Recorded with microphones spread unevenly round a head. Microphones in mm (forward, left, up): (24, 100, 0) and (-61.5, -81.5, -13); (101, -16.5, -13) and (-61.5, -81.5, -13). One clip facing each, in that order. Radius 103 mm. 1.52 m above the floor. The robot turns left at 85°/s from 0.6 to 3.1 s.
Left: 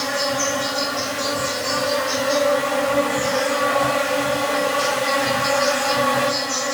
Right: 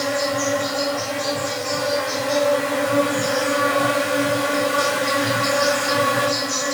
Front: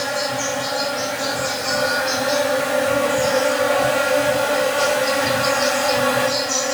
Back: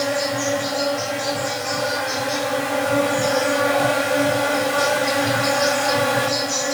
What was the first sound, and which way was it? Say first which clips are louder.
An insect: right 2 dB, back 2 dB; 130° left.